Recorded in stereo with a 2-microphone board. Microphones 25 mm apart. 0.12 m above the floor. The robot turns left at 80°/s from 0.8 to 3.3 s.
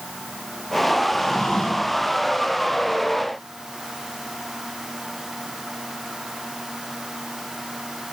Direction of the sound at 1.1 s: 145° left.